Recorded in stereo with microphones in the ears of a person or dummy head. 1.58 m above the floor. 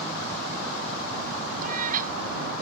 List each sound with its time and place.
1.6 s a cat meowing: 45° right (ahead or behind)